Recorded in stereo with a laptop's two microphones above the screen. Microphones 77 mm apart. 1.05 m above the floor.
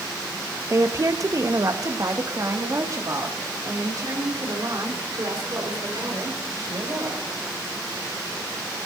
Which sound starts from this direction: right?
A woman speaking, at 0.7 s.